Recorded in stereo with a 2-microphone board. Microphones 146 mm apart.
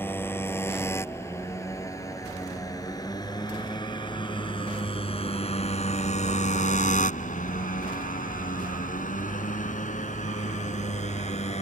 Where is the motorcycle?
15° left (ahead or behind); by 11.6 s 55° left (ahead or behind).